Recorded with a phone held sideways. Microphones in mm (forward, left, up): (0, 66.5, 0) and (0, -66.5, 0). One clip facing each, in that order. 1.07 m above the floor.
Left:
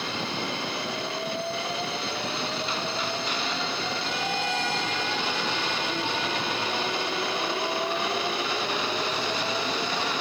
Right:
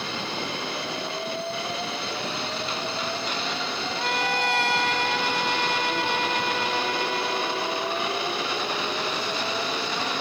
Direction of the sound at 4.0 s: 65° right (ahead or behind).